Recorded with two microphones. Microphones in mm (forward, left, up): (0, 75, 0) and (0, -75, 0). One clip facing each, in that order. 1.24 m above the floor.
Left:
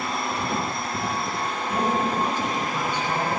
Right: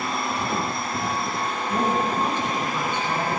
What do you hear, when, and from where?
1.7 s a man speaking: 10° left (ahead or behind), 8 m; by 3.3 s 15° left (ahead or behind), 10 m